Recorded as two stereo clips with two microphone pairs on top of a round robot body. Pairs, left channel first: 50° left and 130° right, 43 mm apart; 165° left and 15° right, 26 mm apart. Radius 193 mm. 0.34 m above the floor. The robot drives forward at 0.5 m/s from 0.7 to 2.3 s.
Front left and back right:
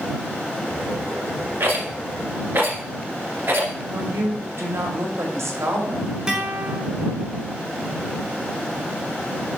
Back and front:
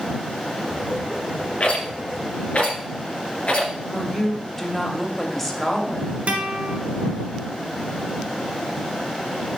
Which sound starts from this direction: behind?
A rattle, at 1.6 s.